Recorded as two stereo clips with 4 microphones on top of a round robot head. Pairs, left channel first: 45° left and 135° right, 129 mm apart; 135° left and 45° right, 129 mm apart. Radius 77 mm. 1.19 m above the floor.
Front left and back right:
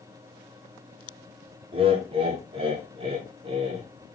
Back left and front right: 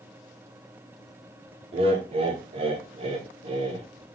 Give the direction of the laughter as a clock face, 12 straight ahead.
3 o'clock.